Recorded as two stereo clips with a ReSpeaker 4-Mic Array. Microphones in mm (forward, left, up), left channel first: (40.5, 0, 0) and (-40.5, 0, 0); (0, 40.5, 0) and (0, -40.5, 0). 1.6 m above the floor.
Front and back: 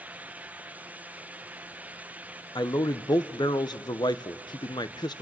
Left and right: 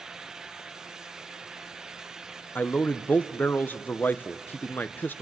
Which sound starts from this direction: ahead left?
A man speaking, at 2.5 s.